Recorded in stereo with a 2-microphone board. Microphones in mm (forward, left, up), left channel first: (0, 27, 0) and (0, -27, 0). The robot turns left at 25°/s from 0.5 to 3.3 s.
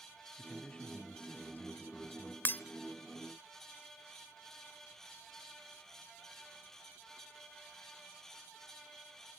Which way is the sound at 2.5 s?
35° left (ahead or behind).